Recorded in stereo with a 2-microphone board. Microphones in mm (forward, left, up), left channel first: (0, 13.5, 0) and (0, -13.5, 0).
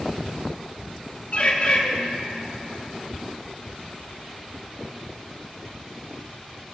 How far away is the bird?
About 1.9 m.